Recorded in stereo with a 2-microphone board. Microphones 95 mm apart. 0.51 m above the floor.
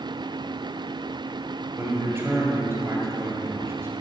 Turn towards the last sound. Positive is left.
turn(degrees=-25)  # may be behind; listen again after turning